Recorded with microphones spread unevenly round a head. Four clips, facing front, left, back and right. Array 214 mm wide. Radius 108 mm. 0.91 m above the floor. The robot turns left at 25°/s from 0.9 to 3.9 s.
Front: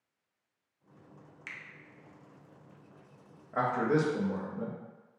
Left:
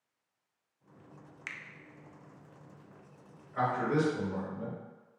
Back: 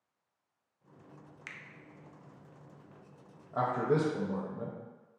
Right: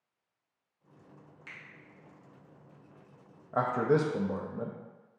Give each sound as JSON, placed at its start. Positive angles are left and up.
{"t": 1.5, "sound": "a finger snap", "azimuth_deg": 105, "distance_m": 0.5}
{"t": 3.5, "sound": "a man speaking", "azimuth_deg": -80, "distance_m": 0.6}